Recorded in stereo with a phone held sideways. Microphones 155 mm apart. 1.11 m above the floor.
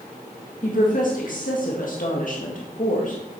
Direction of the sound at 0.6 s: 60° left (ahead or behind).